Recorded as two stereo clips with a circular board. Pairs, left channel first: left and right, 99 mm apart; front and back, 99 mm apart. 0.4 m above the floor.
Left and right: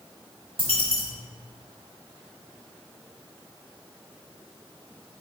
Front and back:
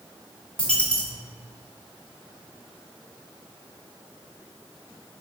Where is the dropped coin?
80° right, 1.0 m.